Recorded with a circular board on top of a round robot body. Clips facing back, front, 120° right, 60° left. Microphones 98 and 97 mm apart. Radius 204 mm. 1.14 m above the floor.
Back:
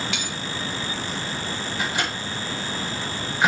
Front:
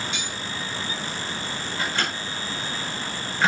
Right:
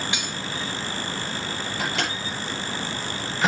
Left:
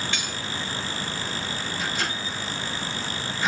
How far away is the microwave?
About 5 m.